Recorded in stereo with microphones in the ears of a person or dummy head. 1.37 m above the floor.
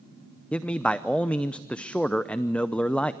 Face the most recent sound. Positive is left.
turn(degrees=5)  # may be behind; listen again after turning